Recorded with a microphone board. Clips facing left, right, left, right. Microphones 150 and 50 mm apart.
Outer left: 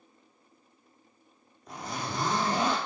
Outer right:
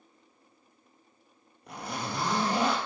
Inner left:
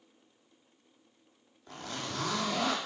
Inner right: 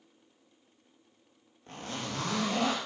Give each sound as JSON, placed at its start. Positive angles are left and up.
{"t": 1.7, "sound": "a zipper", "side_deg": -70, "distance_m": 1.9}